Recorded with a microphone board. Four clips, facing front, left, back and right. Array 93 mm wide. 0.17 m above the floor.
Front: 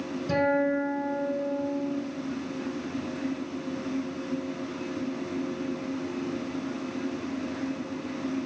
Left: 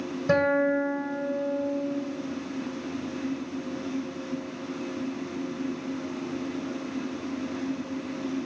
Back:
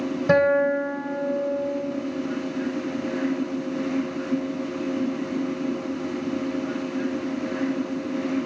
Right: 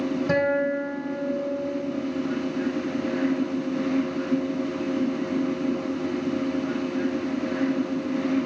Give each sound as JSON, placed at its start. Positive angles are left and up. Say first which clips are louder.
{"t": 0.3, "sound": "a guitar", "louder": "left 2 dB, back 6 dB", "azimuth_deg": 175, "distance_m": 2.5}